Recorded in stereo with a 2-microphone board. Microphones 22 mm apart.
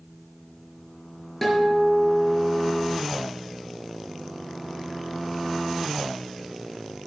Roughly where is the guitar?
Centre.